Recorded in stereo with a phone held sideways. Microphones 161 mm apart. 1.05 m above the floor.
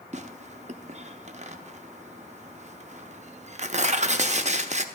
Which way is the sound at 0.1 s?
45° right (ahead or behind).